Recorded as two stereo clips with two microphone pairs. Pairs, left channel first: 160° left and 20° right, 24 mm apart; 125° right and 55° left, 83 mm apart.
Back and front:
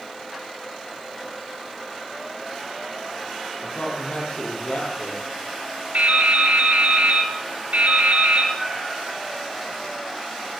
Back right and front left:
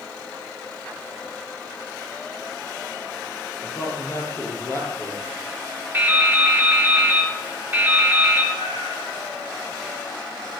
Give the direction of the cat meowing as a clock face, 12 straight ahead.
4 o'clock.